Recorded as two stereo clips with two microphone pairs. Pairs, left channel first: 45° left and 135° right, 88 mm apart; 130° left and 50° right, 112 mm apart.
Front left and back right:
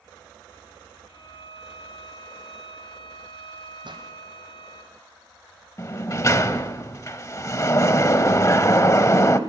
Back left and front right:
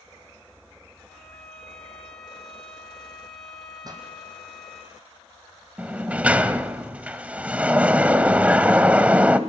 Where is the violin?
40° left, 4 m.